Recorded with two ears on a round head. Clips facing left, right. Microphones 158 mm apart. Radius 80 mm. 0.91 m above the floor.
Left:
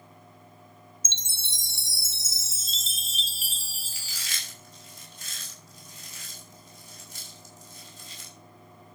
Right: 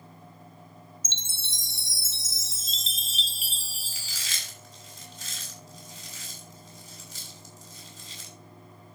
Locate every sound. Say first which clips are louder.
1.1 s a chime: right 1 dB; 80° left, 0.6 m
3.9 s chewing: even; 70° right (ahead or behind), 6.5 m